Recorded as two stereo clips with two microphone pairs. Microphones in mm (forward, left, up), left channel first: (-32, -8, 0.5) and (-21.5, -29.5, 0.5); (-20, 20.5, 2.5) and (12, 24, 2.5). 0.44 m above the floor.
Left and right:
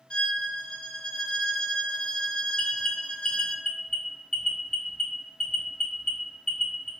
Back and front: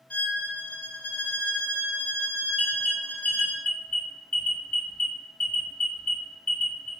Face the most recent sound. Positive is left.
turn(degrees=175)